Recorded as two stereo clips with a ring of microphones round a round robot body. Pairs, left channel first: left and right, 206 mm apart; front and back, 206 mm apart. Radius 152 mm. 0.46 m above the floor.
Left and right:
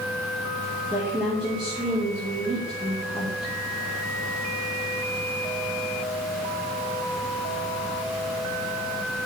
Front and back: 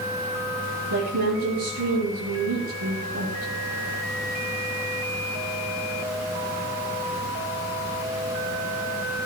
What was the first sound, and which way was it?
A woman speaking, 175° right.